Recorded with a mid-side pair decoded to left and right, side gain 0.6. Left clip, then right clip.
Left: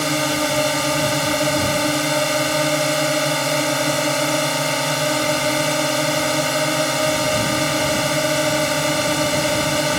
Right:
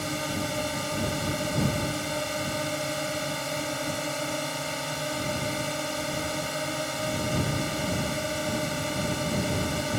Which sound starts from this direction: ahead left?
A drone, at 0.0 s.